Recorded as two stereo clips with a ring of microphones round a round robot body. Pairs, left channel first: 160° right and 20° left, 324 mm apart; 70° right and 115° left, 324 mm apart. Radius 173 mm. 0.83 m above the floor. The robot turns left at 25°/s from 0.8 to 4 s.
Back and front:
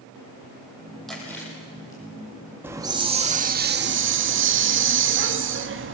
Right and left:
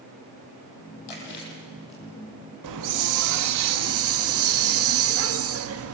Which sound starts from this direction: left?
A hiss, at 2.6 s.